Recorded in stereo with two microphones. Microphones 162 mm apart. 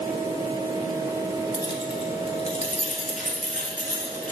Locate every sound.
1.5 s keys jangling: 25° left (ahead or behind), 1.0 m; by 4.3 s 55° left (ahead or behind), 2 m